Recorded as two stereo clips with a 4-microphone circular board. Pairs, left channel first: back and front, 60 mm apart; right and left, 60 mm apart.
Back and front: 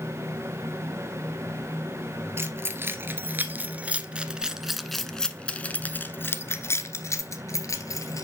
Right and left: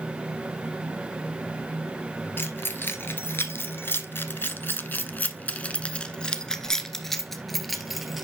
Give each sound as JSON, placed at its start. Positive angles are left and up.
{"t": 2.4, "sound": "keys jangling", "azimuth_deg": -40, "distance_m": 1.8}